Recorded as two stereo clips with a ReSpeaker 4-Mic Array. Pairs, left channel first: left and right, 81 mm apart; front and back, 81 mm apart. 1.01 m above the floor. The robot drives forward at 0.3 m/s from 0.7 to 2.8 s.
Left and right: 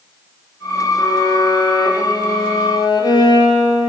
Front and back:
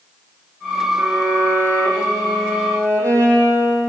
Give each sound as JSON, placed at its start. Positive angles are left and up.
{"t": 1.0, "sound": "a violin", "azimuth_deg": 125, "distance_m": 8.5}